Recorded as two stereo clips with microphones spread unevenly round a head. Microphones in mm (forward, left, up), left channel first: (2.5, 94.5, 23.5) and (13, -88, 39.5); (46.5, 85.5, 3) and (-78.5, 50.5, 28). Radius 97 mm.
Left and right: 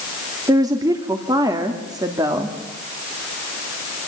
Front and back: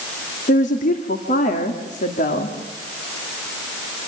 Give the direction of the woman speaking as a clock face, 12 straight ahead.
12 o'clock.